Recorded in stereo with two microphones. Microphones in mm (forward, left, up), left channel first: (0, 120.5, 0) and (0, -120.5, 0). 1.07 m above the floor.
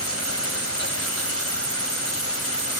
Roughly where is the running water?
Left.